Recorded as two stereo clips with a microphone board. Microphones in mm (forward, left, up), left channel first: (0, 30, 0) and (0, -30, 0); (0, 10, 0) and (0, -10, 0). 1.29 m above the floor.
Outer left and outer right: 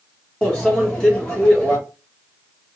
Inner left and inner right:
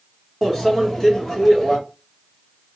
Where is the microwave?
15° left (ahead or behind), 1.2 m.